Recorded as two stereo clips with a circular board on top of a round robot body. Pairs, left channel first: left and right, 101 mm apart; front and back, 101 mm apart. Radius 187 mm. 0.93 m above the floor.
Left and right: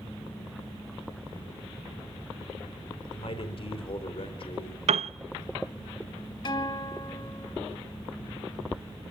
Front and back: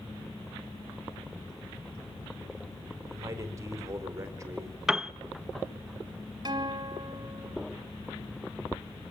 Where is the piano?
95° right, 0.8 m.